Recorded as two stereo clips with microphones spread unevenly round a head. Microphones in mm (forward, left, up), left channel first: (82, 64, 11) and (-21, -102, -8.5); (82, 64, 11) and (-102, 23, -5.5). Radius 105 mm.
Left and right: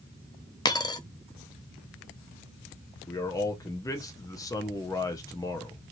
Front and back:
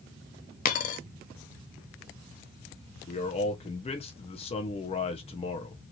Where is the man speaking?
5° right, 0.6 m.